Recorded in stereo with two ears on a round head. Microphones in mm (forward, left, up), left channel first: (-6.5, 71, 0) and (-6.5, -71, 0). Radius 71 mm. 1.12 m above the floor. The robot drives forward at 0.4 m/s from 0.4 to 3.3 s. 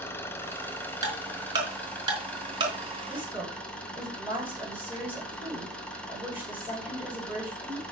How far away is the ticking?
About 4 m.